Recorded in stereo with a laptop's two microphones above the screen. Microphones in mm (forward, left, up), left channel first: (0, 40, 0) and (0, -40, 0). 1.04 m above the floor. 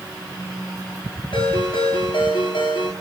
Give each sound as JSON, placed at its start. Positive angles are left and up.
{"t": 1.3, "sound": "a ringtone", "side_deg": 85, "distance_m": 8.0}